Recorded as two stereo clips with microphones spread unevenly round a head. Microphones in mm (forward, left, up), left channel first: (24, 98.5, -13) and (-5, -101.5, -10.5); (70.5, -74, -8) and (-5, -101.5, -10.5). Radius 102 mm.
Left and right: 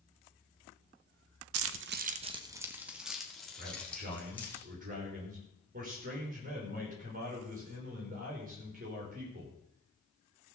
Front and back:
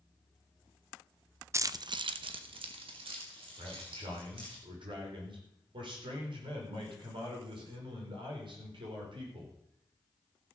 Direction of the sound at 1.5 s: 100° right.